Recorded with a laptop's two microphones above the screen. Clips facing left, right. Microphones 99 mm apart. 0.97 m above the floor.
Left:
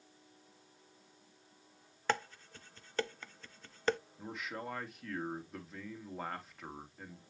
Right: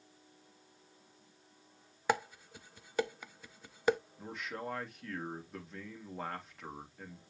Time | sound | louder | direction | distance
2.1 | dishes clattering | right 2 dB | 10° right (ahead or behind) | 0.7 m
4.2 | a man speaking | right 1 dB | centre (ahead or behind) | 2.0 m